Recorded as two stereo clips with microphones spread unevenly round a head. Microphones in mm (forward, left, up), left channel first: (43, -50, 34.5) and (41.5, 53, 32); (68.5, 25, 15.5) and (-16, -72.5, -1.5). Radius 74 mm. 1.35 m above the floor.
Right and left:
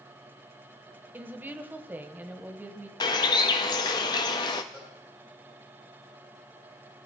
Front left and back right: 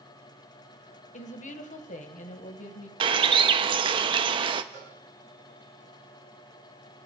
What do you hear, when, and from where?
1.1 s a woman speaking: 20° left, 1.5 m
3.0 s a bird: 105° right, 0.7 m
4.7 s a cowbell: 175° right, 4 m